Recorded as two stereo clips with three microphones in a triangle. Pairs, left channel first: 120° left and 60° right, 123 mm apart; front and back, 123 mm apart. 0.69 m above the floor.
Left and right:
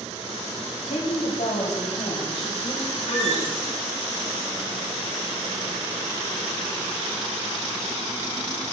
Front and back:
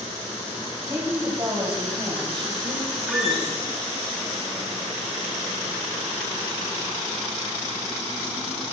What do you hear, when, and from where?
0.9 s a woman speaking: 115° left, 4 m; by 3.6 s 155° left, 4 m
3.1 s a squeak: 95° left, 3 m